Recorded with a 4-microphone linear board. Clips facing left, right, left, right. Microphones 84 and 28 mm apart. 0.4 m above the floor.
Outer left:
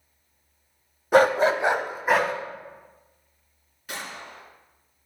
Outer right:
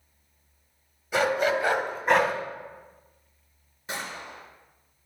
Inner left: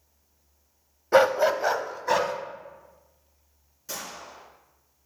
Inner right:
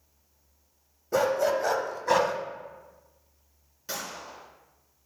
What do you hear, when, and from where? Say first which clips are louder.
1.1 s a dog barking: outer left 6 dB, inner left 5 dB; 55° left (ahead or behind), 0.5 m; by 2.3 s centre (ahead or behind), 0.9 m
3.9 s a gunshot: outer right 1 dB, inner right 1 dB; 25° right (ahead or behind), 3.5 m